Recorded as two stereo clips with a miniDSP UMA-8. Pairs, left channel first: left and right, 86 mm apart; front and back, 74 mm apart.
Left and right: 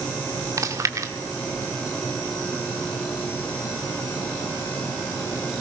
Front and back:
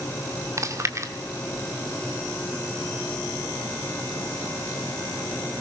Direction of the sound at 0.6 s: 135° right.